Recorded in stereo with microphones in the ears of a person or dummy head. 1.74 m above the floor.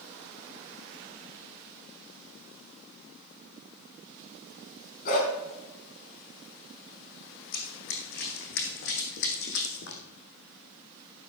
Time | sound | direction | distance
5.0 | a dog barking | 55° left (ahead or behind) | 4.5 m
7.5 | running footsteps | 55° left (ahead or behind) | 4 m